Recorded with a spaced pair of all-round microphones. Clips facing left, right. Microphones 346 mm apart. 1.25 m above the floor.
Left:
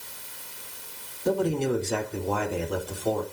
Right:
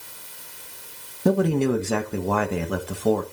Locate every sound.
1.2 s a man speaking: 85° right, 1.5 m